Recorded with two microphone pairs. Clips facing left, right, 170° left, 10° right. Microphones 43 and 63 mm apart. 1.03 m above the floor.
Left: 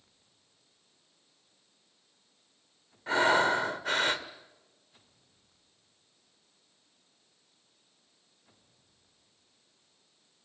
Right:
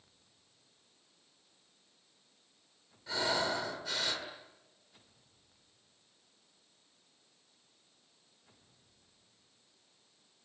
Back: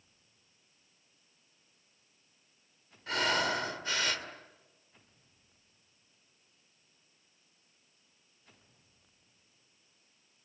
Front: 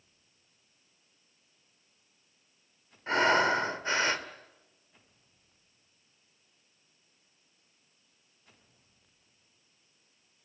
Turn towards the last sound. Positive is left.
turn(degrees=45)